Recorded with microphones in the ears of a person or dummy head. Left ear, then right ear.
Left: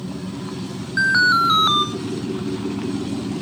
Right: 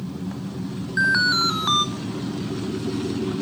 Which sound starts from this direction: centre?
An alarm, at 1.0 s.